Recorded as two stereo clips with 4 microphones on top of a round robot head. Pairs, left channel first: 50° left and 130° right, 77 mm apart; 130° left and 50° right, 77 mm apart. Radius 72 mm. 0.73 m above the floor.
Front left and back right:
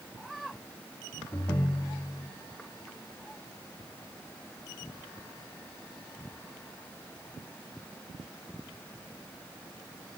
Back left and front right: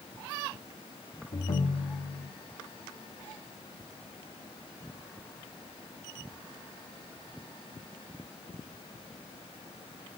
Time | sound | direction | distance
1.3 | a ringtone | 115° left | 0.7 m